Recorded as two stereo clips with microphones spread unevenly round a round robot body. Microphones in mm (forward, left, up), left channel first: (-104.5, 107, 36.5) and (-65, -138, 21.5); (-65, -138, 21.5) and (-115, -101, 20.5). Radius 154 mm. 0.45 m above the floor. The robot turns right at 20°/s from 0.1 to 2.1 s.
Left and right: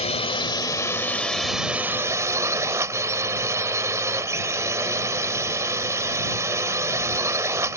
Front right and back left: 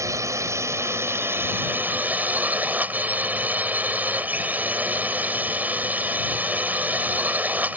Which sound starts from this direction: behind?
A drone, at 0.0 s.